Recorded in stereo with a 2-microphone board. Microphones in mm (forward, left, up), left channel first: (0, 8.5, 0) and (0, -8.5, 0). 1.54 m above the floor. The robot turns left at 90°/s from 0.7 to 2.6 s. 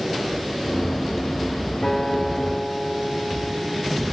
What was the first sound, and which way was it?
A guitar, 100° left.